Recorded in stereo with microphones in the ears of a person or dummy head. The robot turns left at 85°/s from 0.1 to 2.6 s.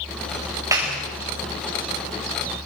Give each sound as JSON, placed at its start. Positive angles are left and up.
{"t": 0.7, "sound": "a clap", "side_deg": -15, "distance_m": 6.0}